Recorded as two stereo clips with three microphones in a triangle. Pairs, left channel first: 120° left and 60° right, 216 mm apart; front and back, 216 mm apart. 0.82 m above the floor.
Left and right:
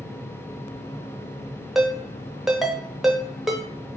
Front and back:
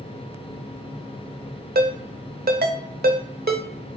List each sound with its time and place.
1.8 s a ringtone: 150° right, 0.6 m